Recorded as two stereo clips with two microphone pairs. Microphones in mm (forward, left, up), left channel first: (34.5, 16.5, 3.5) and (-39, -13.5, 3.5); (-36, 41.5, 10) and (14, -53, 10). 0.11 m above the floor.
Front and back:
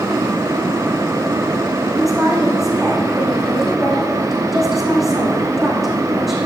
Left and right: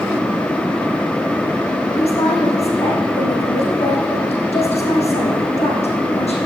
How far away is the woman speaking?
About 5 m.